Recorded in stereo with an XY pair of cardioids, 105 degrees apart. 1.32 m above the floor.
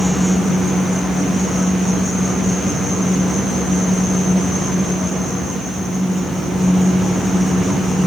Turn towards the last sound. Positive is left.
turn(degrees=-15)